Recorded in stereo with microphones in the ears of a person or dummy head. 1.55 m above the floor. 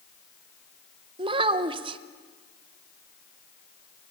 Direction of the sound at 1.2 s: 30° right (ahead or behind).